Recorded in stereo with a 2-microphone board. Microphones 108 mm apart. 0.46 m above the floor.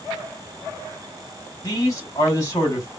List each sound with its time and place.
1.6 s a man speaking: 30° left (ahead or behind), 3 m